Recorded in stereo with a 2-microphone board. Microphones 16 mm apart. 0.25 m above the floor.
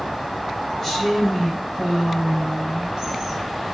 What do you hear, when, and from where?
0.8 s a woman speaking: 20° left (ahead or behind), 1.4 m; by 3.4 s 40° right (ahead or behind), 1.9 m